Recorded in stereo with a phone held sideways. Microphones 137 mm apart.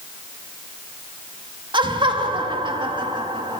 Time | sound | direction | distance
1.7 | laughter | 35° right (ahead or behind) | 2.5 m